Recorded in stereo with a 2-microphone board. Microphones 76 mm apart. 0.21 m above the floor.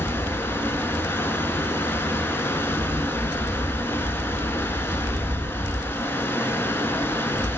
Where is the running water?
30° left (ahead or behind), 1.0 m.